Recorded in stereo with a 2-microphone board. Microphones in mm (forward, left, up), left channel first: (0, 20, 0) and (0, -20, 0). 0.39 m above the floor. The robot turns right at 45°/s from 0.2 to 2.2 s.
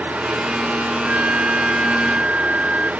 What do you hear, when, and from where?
1.0 s a flute: 90° right; by 2.9 s 40° right